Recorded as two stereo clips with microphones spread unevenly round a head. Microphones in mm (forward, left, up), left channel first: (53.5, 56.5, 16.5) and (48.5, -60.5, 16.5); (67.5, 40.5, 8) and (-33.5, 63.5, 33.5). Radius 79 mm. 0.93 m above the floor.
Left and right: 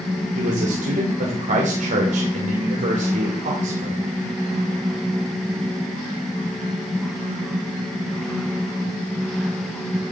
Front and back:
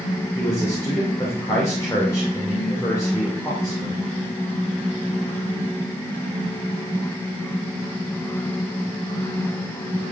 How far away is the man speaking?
About 3 m.